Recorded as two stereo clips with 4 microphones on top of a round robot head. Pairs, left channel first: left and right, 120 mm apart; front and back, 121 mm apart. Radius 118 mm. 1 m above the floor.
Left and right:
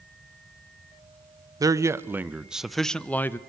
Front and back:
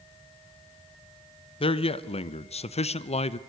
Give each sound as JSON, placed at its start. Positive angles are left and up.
{"t": 1.6, "sound": "a man speaking", "azimuth_deg": -35, "distance_m": 1.2}